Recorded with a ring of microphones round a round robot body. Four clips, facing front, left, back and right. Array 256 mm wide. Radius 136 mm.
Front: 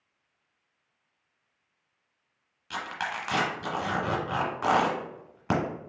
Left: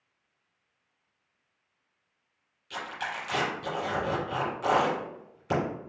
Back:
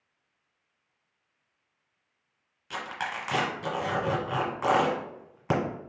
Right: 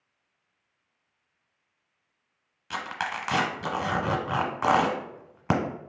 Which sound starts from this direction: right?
Tearing paper, at 2.7 s.